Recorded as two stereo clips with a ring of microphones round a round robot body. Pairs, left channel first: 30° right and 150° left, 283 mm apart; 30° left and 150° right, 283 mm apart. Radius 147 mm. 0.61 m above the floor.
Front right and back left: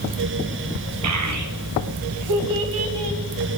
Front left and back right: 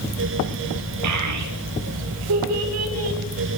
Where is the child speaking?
175° right, 1.9 m; by 3.2 s 170° left, 3 m.